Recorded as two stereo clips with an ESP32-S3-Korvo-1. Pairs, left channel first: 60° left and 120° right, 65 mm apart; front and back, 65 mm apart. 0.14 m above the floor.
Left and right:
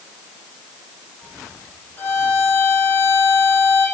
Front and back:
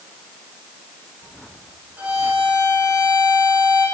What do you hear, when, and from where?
2.0 s a violin: 115° left, 6 m